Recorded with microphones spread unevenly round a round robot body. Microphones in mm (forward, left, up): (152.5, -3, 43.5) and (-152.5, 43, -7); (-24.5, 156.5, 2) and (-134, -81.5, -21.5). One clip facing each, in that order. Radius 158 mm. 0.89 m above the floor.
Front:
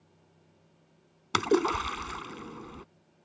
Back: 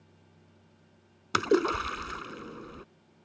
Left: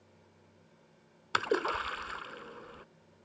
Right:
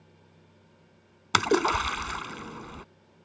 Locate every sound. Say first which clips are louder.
1.3 s a splash: even, right 7 dB; 85° right